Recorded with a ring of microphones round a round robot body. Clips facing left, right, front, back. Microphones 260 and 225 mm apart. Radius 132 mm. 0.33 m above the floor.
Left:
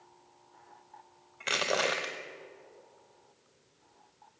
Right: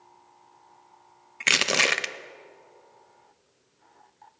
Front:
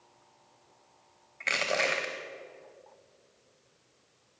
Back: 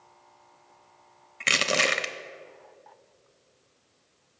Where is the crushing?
130° right, 0.5 m.